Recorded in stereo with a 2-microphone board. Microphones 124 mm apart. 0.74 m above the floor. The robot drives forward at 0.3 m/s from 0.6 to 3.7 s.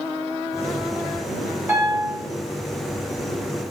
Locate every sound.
1.7 s a piano: 15° right (ahead or behind), 1.1 m